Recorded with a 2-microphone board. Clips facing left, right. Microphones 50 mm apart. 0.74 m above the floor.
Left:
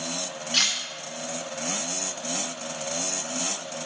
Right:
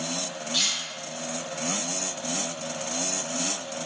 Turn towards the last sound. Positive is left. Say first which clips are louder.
# left 3 dB
turn(degrees=60)  # may be behind; listen again after turning